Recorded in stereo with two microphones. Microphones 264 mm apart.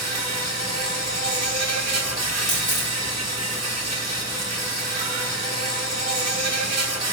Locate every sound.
0.0 s an insect: 80° right, 0.9 m
2.5 s a camera shutter: 15° right (ahead or behind), 2.5 m